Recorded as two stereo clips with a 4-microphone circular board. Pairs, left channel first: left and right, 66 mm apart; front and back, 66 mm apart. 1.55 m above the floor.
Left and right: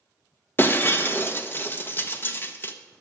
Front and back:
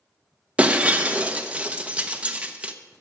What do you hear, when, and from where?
0.6 s breaking glass: 120° left, 0.9 m